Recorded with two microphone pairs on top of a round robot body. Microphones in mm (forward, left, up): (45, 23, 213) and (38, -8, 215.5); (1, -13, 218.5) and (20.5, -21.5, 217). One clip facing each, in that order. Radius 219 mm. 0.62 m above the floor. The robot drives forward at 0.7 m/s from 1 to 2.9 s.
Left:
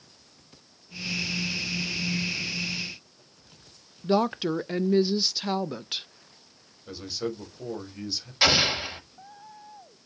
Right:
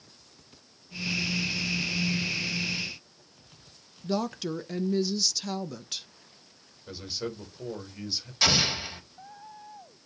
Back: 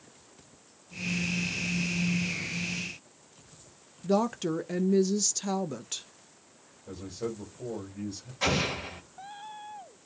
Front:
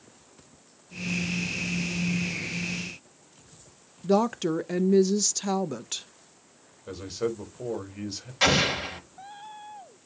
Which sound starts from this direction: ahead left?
A woman speaking, at 4.0 s.